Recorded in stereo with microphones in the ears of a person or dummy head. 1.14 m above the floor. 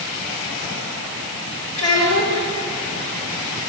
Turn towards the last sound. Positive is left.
turn(degrees=75)  # may be behind; listen again after turning